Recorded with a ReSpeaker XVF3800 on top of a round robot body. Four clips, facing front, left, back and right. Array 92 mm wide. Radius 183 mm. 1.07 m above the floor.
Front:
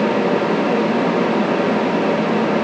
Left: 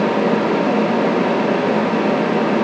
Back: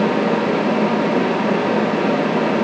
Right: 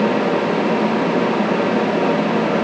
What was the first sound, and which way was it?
Only background noise.